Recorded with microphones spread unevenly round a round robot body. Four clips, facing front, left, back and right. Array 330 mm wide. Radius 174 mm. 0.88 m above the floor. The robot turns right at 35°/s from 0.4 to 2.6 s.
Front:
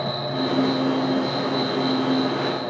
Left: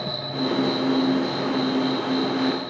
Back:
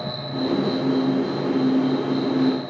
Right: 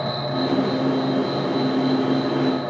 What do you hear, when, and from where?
0.0 s an insect: 30° left, 0.8 m; by 2.7 s 105° left, 0.8 m